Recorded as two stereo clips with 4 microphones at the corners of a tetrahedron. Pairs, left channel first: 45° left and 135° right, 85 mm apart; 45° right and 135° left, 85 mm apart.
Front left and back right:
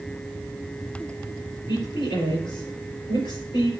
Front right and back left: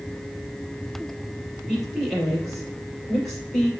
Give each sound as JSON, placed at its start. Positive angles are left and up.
{"t": 1.7, "sound": "a woman speaking", "azimuth_deg": 45, "distance_m": 4.5}